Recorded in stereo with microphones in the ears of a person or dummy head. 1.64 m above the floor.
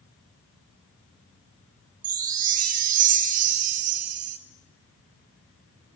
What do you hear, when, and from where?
2.0 s a chime: 45° right (ahead or behind), 1.6 m